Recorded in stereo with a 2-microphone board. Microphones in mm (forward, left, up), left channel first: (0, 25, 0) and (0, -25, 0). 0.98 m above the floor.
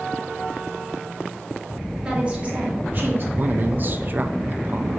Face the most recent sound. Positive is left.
turn(degrees=-45)  # may be behind; listen again after turning